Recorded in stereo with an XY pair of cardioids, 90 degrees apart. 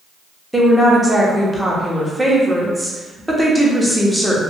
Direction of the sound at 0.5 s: 5° right.